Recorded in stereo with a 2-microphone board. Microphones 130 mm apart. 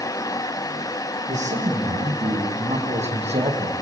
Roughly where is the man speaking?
Right.